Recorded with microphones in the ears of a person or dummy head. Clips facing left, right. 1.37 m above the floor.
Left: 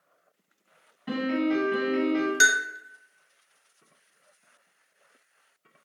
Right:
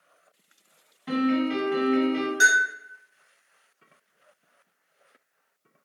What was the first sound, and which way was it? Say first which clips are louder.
A piano: right 2 dB; centre (ahead or behind).